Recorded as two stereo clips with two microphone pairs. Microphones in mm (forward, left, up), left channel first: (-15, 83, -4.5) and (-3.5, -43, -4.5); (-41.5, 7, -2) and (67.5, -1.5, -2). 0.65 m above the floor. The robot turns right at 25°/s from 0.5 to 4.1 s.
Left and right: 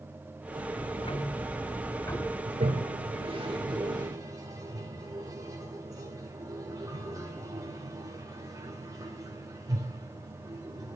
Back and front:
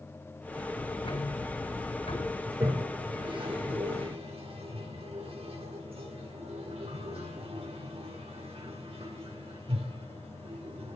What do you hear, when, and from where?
0.7 s ticking: 125° left, 6.5 m; by 2.4 s 165° left, 6.5 m
2.5 s a toilet flushing: 65° right, 2.5 m; by 11.0 s 25° right, 2.5 m